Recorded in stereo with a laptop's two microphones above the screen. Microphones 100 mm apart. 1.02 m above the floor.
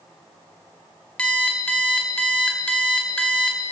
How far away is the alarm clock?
About 1.3 m.